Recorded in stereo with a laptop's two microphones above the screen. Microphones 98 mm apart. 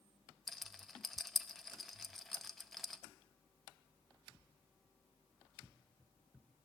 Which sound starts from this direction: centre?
A rattle, at 0.5 s.